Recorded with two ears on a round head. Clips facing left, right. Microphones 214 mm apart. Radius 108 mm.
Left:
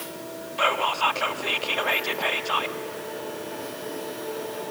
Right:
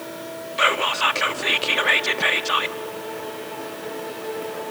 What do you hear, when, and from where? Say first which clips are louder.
0.6 s whispering: right 1 dB; 25° right (ahead or behind), 0.9 m